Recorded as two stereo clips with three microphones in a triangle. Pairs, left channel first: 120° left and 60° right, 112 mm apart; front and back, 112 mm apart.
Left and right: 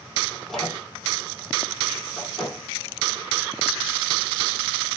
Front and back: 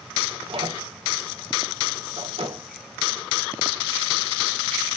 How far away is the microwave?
About 3.5 m.